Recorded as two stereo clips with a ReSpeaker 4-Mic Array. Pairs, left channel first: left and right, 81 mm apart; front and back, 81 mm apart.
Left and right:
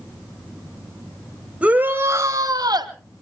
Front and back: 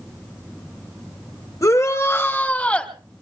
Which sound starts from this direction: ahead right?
A shout, at 1.6 s.